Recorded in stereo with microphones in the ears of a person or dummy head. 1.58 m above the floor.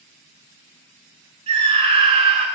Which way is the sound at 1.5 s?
35° right (ahead or behind).